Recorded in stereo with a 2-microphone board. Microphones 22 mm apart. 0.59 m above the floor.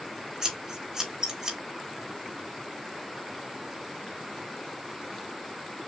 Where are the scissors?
25° right (ahead or behind), 1.3 m.